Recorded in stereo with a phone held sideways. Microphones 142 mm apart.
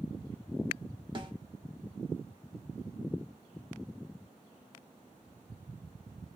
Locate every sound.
1.1 s a snare drum: 35° right (ahead or behind), 0.9 m